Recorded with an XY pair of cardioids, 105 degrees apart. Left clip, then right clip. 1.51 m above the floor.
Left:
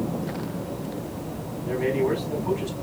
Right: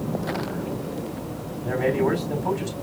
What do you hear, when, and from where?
1.6 s a man speaking: 60° right, 4 m